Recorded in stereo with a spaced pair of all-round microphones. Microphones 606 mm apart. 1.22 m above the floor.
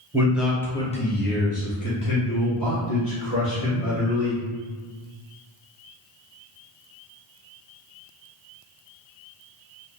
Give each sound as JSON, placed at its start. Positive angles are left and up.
{"t": 0.1, "sound": "a man speaking", "side_deg": -5, "distance_m": 0.8}